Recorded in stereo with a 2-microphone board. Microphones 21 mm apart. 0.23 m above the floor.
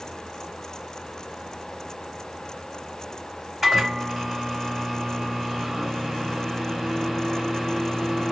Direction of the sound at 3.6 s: Centre (ahead or behind).